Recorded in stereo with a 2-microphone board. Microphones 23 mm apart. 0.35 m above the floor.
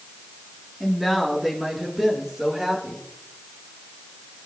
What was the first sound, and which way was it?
A woman speaking, 10° right (ahead or behind).